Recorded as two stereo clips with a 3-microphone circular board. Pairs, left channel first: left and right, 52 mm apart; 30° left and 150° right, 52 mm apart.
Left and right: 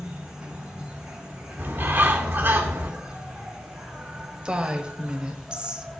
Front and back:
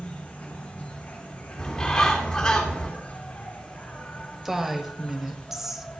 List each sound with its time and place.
0.0 s an insect: 25° right, 2 m
1.6 s a bird: 50° right, 2.5 m
4.5 s a woman speaking: 80° right, 0.9 m